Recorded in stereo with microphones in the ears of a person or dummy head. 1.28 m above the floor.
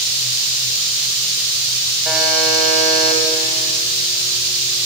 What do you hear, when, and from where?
2.0 s a buzzer: 5° right (ahead or behind), 5.5 m